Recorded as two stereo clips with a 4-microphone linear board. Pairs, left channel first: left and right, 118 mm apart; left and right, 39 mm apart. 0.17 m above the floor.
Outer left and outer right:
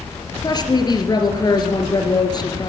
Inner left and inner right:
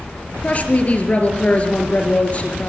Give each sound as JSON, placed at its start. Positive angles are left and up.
{"t": 0.4, "sound": "a woman speaking", "side_deg": 35, "distance_m": 3.5}